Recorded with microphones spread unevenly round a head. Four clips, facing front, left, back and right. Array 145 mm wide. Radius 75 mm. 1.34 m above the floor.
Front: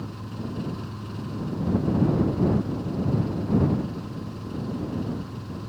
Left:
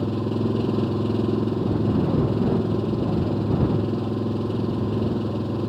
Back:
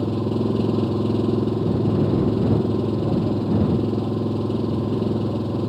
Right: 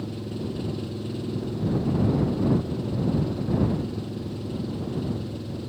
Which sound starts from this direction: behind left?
An engine running, at 0.0 s.